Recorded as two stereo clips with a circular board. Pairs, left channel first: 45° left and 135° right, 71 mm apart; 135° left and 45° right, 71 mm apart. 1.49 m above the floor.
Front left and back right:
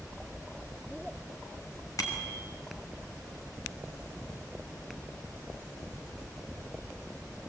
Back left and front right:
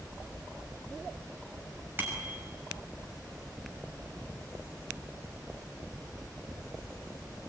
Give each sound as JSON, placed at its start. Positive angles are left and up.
{"t": 2.0, "sound": "a bicycle bell", "azimuth_deg": 15, "distance_m": 6.0}